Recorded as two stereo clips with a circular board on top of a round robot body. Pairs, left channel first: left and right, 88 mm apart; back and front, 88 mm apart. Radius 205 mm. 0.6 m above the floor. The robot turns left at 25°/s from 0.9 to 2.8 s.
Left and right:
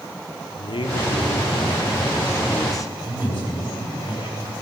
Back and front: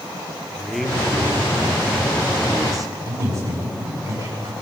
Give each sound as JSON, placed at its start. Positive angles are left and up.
{"t": 0.6, "sound": "a man speaking", "azimuth_deg": 90, "distance_m": 2.5}
{"t": 3.0, "sound": "a man speaking", "azimuth_deg": 55, "distance_m": 8.0}